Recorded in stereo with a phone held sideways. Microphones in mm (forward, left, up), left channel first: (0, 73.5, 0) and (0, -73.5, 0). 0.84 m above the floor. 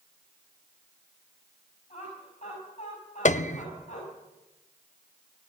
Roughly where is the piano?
Left.